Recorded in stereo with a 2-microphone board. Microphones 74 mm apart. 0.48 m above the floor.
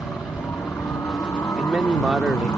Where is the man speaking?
15° right (ahead or behind).